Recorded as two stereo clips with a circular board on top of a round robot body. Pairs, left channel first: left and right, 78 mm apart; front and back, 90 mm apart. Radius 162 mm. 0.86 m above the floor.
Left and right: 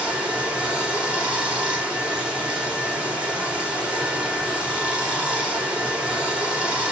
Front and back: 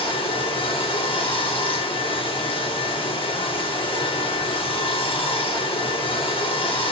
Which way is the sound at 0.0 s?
10° right.